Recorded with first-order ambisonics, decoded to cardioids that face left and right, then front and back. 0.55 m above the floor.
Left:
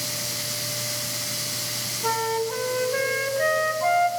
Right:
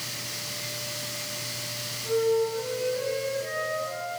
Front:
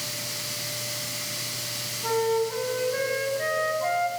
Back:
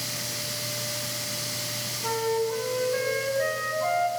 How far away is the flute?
About 1.8 m.